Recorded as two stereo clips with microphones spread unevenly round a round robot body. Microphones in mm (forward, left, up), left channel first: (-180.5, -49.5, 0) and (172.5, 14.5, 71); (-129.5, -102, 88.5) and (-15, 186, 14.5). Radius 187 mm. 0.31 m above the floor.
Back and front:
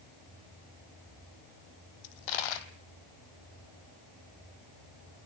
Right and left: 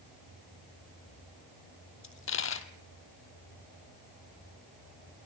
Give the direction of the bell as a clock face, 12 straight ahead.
I don't hear a bell.